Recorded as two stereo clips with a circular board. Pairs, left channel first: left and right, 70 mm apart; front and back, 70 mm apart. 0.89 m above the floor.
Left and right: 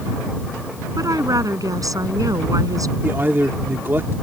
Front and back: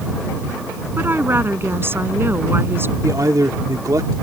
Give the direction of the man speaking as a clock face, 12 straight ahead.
5 o'clock.